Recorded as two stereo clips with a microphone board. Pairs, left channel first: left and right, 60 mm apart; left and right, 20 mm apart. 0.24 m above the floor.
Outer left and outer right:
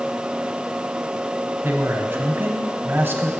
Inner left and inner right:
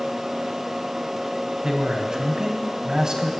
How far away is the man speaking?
About 1.2 m.